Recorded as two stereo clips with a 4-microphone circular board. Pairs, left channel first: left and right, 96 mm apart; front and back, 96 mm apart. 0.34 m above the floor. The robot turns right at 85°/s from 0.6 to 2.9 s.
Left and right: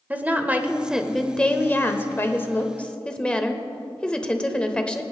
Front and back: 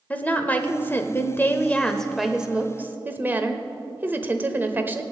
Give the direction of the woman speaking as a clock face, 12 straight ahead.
1 o'clock.